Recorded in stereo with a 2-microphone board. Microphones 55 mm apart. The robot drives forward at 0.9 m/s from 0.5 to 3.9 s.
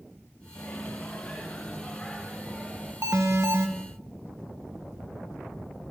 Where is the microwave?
40° left (ahead or behind), 1.3 m; by 2.9 s 15° left (ahead or behind), 3 m.